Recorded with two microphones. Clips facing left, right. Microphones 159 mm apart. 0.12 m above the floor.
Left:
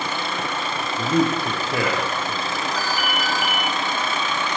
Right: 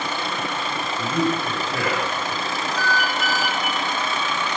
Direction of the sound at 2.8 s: 25° right (ahead or behind).